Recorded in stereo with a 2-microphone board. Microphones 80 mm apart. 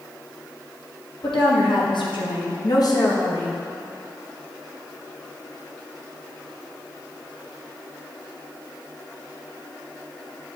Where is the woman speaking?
80° left, 1.7 m; by 3.6 s 30° left (ahead or behind), 1.3 m.